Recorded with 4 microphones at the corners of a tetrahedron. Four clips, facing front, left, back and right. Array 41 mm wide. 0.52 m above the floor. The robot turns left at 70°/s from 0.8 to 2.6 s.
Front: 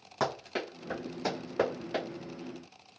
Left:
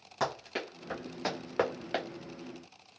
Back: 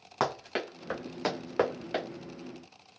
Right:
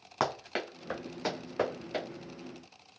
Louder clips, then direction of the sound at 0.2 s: Right 2 dB, back 2 dB; 135° right.